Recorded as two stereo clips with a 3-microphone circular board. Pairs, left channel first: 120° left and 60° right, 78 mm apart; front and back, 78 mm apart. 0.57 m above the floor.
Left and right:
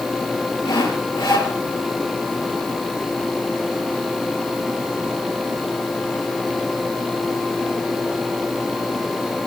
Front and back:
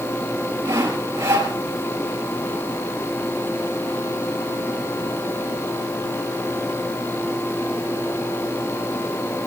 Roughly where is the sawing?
Behind left.